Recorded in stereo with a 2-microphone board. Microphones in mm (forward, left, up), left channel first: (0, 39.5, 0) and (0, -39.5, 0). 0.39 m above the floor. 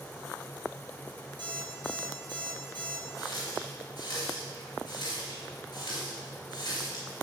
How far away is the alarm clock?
About 4 m.